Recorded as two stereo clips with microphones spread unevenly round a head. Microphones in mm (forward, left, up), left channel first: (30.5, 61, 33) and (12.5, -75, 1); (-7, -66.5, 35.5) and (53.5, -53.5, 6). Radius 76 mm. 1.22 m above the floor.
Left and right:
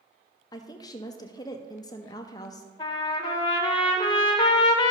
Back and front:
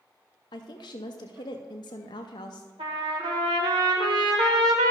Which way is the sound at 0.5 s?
155° left.